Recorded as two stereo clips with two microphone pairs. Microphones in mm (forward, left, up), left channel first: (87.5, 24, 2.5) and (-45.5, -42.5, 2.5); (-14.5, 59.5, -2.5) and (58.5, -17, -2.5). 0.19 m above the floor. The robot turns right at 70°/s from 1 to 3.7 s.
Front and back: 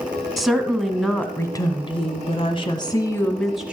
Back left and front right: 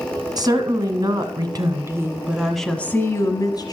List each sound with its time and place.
0.4 s a woman speaking: 60° right, 1.3 m; by 3.7 s 130° left, 1.3 m